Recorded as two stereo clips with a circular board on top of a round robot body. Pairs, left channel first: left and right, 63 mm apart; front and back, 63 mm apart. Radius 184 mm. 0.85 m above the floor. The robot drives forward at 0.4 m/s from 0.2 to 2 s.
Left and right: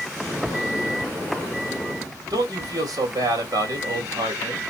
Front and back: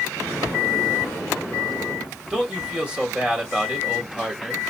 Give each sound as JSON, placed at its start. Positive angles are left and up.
{"t": 2.3, "sound": "a man speaking", "azimuth_deg": -105, "distance_m": 3.5}